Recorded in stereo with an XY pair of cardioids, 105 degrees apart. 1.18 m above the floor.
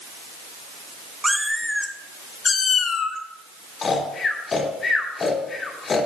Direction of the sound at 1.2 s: 15° right.